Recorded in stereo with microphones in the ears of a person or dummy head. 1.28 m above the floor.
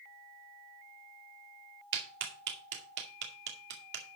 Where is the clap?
55° right (ahead or behind), 2 m.